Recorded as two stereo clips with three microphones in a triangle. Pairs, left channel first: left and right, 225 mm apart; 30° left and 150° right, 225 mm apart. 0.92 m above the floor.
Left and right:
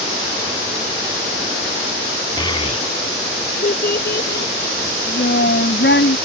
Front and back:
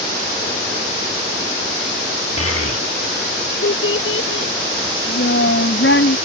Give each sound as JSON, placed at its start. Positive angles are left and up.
{"t": 2.4, "sound": "a child speaking", "azimuth_deg": 20}